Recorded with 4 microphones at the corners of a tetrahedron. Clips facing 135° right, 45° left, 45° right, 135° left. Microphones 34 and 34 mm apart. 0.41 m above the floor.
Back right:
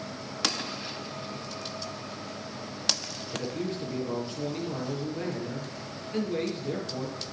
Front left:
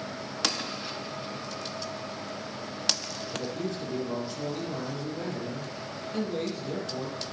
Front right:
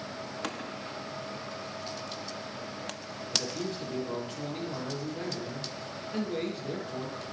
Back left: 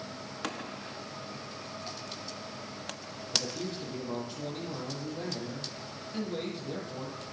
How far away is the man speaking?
About 7 m.